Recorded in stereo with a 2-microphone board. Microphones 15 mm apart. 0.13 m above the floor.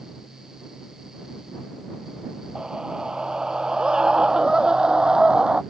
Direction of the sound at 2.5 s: 65° right (ahead or behind).